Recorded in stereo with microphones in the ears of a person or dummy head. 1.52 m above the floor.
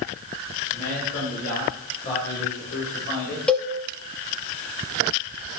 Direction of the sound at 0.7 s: 60° left (ahead or behind).